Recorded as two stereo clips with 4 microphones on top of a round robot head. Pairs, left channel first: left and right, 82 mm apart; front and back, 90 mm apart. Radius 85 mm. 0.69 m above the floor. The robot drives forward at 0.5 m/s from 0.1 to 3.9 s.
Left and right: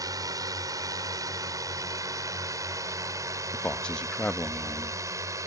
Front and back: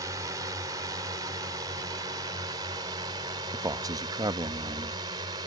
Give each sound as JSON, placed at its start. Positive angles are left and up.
{"t": 0.0, "sound": "a drone", "azimuth_deg": -130}
{"t": 3.5, "sound": "a man speaking", "azimuth_deg": 160}